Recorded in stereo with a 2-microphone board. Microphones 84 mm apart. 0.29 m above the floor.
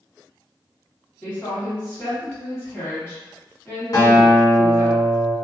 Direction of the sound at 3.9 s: 50° left (ahead or behind).